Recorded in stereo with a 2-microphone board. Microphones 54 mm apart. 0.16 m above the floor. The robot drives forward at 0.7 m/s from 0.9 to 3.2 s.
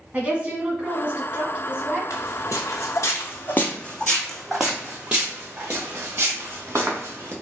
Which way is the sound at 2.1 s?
70° left (ahead or behind).